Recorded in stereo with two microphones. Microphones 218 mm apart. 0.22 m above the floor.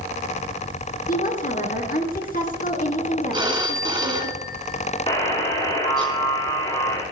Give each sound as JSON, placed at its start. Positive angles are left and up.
{"t": 1.1, "sound": "a woman speaking", "side_deg": 40, "distance_m": 2.5}
{"t": 3.3, "sound": "a phone ringing", "side_deg": -20, "distance_m": 1.8}
{"t": 5.1, "sound": "a buzzer", "side_deg": 20, "distance_m": 4.0}